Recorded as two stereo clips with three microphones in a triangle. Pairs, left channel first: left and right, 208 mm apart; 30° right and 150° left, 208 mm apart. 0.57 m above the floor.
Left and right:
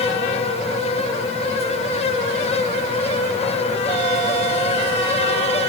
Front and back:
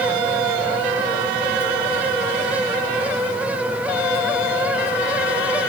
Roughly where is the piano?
I don't hear a piano.